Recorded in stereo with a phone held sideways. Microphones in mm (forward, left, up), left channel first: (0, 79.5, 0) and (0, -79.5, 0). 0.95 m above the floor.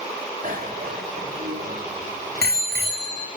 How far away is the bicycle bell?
About 3 m.